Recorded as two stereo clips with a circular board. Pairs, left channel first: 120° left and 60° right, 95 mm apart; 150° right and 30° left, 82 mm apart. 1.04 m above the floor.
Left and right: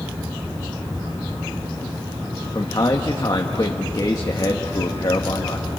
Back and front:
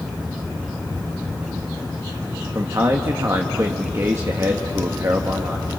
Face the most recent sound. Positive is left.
turn(degrees=80)